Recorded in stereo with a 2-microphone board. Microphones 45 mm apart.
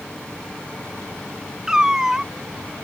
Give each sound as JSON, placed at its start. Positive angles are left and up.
{"t": 1.7, "sound": "a cat meowing", "side_deg": -15}